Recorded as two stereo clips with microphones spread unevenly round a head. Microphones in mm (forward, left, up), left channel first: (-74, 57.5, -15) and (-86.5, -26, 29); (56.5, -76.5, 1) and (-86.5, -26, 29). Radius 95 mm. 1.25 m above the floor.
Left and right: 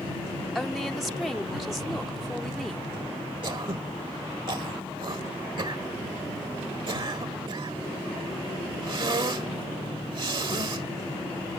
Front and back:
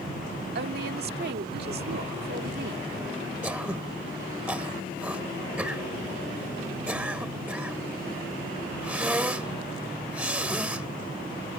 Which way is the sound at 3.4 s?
120° right.